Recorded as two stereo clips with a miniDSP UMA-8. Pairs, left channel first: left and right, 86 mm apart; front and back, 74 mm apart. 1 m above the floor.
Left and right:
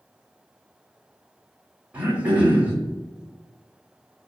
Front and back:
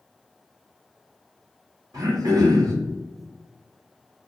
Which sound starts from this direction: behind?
Throat clearing, at 1.9 s.